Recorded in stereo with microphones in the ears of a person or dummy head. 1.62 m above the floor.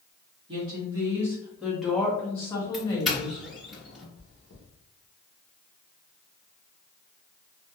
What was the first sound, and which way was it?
A woman speaking, 25° right (ahead or behind).